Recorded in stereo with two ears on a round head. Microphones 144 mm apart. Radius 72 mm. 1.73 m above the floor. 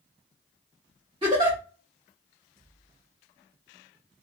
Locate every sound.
1.2 s a giggle: 30° right (ahead or behind), 1.5 m